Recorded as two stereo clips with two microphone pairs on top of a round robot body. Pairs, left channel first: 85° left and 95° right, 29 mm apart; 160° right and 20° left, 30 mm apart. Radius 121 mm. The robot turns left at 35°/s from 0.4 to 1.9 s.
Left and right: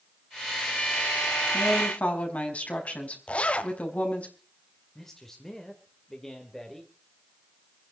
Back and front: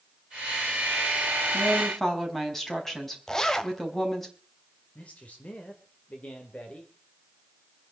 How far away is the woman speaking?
About 4.5 m.